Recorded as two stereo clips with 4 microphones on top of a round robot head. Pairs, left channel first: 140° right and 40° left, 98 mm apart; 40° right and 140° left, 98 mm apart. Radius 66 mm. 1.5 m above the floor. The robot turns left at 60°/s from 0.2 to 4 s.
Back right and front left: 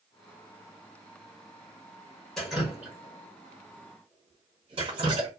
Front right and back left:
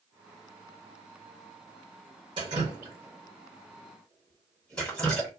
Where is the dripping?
130° left, 1.3 m; by 5.3 s 35° left, 1.3 m.